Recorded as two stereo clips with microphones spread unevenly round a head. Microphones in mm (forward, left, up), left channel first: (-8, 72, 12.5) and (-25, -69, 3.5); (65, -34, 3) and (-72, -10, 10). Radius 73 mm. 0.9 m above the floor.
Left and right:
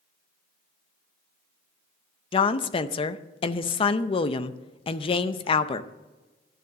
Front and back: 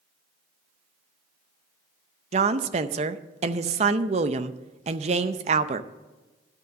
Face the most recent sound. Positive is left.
turn(degrees=130)